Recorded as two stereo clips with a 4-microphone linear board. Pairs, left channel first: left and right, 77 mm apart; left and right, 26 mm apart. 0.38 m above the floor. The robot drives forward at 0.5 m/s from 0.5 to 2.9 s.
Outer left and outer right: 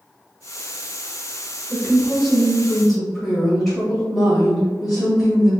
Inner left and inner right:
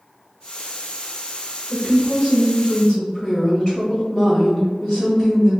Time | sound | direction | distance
1.7 | a woman speaking | centre (ahead or behind) | 1.0 m